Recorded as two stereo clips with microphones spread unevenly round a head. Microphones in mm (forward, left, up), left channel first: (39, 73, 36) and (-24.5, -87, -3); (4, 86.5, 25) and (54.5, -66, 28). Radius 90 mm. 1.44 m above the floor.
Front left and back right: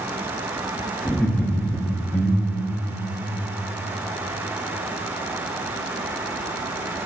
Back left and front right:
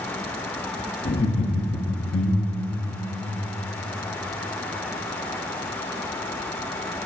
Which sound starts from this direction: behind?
Laughter, at 1.1 s.